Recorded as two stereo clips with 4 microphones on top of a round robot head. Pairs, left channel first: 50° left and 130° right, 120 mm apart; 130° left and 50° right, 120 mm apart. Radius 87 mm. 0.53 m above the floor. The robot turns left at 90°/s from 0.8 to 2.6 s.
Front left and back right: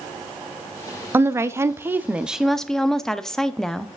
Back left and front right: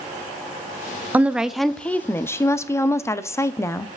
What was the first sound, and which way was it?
A woman speaking, 100° right.